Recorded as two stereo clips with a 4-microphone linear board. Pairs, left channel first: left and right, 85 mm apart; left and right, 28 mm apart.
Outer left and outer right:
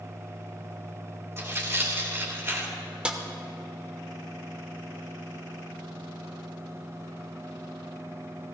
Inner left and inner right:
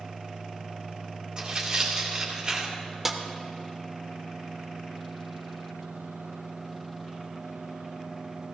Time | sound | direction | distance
1.4 | tearing paper | 35° right (ahead or behind) | 2.0 m
3.0 | a snare drum | 10° right (ahead or behind) | 0.8 m